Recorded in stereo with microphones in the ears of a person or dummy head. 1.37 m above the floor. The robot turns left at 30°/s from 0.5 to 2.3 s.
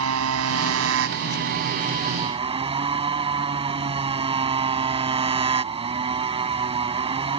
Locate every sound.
0.0 s a motorcycle: 95° right; by 7.4 s 150° right